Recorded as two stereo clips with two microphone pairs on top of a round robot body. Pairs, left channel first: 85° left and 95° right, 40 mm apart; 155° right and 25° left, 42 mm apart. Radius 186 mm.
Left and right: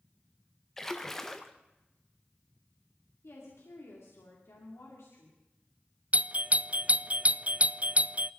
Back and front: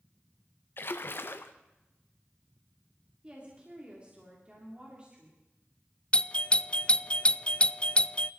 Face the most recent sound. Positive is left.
turn(degrees=-115)